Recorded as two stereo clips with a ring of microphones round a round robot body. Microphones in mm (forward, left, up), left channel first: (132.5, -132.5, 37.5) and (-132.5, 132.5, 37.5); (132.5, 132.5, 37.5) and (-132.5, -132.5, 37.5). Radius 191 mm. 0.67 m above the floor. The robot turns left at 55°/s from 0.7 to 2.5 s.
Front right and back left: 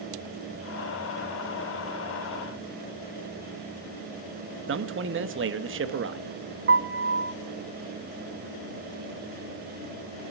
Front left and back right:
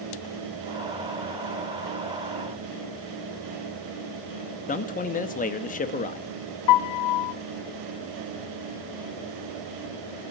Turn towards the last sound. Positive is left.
turn(degrees=75)